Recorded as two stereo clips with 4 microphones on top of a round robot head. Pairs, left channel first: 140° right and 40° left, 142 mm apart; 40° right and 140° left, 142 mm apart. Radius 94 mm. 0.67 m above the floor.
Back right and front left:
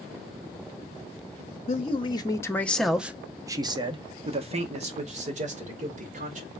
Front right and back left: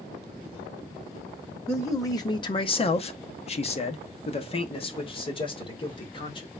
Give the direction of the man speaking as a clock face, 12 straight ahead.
4 o'clock.